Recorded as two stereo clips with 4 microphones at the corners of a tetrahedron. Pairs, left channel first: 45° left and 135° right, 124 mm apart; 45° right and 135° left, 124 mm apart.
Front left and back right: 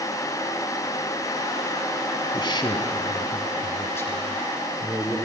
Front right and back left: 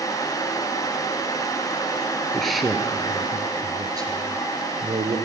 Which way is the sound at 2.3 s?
40° left.